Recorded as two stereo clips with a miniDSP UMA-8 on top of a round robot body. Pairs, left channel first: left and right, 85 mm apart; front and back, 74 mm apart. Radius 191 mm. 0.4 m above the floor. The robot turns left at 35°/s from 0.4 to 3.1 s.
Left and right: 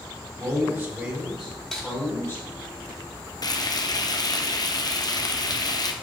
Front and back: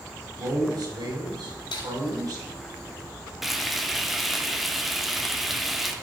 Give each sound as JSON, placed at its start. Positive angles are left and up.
{"t": 0.4, "sound": "a man speaking", "azimuth_deg": -150, "distance_m": 4.5}
{"t": 1.7, "sound": "cutlery clinking", "azimuth_deg": 5, "distance_m": 2.5}
{"t": 3.4, "sound": "frying", "azimuth_deg": 90, "distance_m": 1.6}